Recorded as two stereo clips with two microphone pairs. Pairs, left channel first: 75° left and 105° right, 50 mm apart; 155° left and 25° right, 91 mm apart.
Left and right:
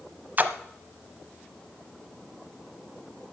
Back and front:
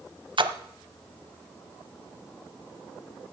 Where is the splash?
50° right, 0.8 m.